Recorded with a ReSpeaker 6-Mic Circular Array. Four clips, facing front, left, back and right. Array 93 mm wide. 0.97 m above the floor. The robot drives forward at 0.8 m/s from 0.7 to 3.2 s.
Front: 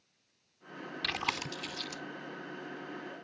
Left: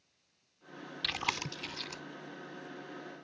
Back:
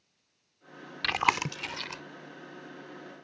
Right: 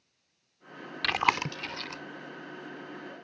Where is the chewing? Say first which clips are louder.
Right 11 dB, back 10 dB; 120° right; by 2.0 s 150° right.